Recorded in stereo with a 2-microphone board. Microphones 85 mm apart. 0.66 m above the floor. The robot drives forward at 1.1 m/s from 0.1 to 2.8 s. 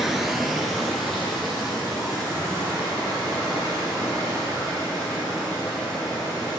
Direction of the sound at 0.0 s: 5° right (ahead or behind).